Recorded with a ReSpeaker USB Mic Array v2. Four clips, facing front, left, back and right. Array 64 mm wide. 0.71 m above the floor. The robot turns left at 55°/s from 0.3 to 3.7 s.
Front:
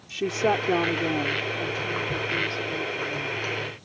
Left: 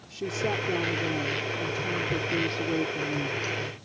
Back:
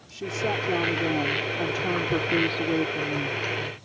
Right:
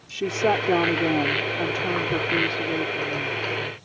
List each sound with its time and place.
0.1 s a woman speaking: 45° right; by 3.4 s 145° left